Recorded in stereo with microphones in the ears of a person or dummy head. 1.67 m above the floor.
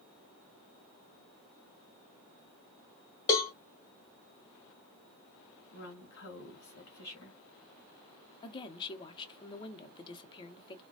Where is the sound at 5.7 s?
55° left (ahead or behind), 1.8 m.